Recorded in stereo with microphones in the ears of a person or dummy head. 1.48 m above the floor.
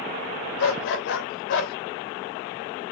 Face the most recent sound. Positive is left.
turn(degrees=65)  # may be behind; listen again after turning